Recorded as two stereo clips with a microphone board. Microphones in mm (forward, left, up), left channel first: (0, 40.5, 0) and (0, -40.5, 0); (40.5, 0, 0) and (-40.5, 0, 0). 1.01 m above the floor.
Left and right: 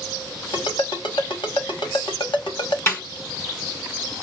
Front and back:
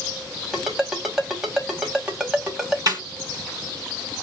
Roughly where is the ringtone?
Left.